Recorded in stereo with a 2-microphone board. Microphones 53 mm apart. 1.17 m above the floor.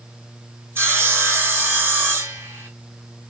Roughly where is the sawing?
Right.